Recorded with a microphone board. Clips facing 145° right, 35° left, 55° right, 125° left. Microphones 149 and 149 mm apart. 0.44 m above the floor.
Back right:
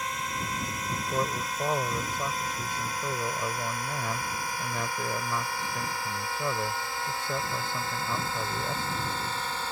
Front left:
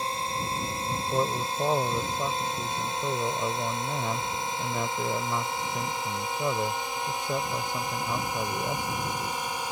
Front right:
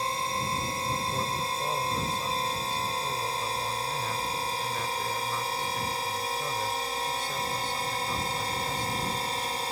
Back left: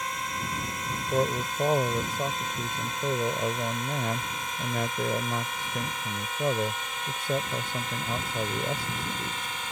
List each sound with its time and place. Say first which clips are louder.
0.0 s a drone: front left 3 dB, front right 3 dB; 10° right; by 9.7 s 35° right
1.1 s a man speaking: front left 3 dB, back left 5 dB; 105° left